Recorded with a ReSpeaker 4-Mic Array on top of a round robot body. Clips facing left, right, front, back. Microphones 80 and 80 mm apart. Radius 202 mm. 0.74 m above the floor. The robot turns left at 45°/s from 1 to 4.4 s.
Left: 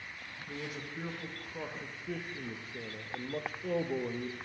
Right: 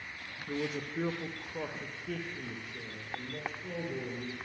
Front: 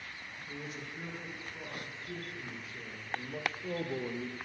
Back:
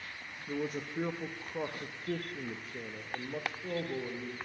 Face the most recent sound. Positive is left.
turn(degrees=60)